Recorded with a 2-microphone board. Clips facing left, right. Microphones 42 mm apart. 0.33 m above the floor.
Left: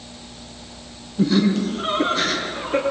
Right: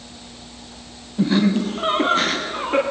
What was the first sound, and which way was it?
Laughter, 30° right (ahead or behind).